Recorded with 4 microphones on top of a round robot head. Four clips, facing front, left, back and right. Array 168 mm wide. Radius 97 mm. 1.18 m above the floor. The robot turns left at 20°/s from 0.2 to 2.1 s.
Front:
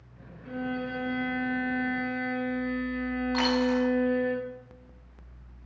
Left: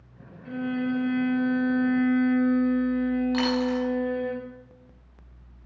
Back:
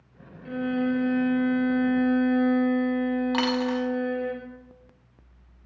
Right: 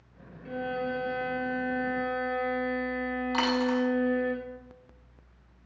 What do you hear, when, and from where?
0.5 s a violin: straight behind, 5 m; by 4.3 s 145° left, 5 m
3.3 s a dropped coin: 170° right, 4.5 m